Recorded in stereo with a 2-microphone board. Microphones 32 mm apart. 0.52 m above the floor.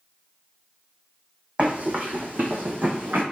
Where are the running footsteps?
40° right (ahead or behind), 1.4 m; by 3.2 s 70° right (ahead or behind), 2 m.